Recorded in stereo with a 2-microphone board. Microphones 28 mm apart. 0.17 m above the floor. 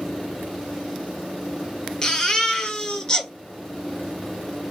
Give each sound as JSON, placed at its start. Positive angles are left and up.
{"t": 2.0, "sound": "a baby crying", "side_deg": 25, "distance_m": 1.2}